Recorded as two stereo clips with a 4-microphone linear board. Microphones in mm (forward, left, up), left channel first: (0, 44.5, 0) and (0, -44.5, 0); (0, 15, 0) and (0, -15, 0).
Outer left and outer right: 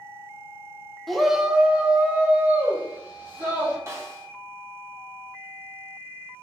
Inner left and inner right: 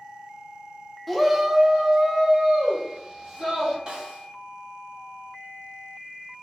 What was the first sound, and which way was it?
A shout, centre (ahead or behind).